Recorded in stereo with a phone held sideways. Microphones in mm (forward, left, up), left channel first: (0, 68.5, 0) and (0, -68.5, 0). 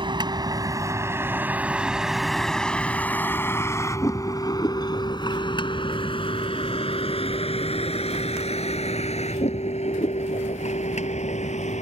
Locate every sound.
0.0 s a vehicle: 35° right (ahead or behind); by 11.8 s 55° left (ahead or behind)